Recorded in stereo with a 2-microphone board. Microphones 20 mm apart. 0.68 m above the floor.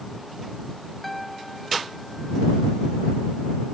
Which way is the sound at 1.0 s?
Centre (ahead or behind).